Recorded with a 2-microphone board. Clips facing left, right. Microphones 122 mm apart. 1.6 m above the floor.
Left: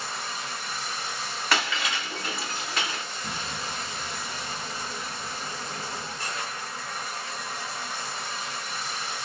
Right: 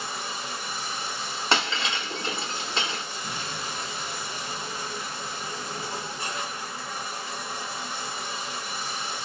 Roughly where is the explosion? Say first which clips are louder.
Left 1 dB; left.